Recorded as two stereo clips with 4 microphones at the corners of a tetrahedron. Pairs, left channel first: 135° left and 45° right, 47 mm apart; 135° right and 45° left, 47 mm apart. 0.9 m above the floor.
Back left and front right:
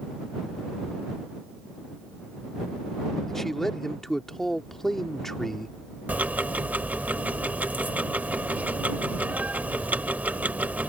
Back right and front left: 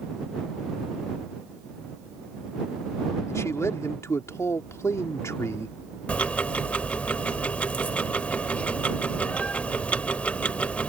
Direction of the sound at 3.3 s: 140° right.